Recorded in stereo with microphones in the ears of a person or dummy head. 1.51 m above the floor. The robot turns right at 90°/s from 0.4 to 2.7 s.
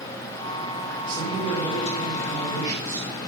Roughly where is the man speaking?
Ahead right.